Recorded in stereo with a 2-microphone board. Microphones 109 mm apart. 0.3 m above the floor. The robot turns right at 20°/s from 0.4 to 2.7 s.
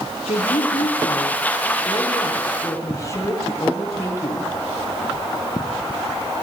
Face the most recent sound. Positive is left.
turn(degrees=150)